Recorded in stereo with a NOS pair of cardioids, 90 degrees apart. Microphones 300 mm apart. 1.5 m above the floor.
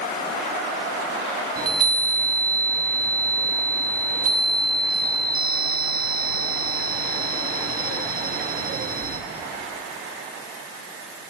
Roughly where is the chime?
Ahead right.